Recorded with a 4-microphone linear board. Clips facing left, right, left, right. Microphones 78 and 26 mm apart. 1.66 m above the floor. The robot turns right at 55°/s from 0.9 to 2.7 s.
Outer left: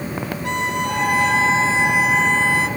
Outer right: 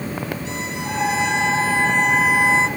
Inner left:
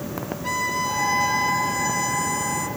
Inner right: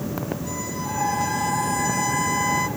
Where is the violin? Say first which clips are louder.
Outer left 5 dB, inner left 5 dB; 110° left, 1.8 m; by 2.7 s 150° right, 1.8 m.